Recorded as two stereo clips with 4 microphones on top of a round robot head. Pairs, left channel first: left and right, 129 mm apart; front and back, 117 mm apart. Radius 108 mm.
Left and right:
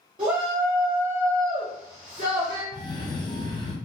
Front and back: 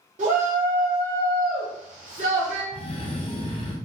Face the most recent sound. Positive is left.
turn(degrees=35)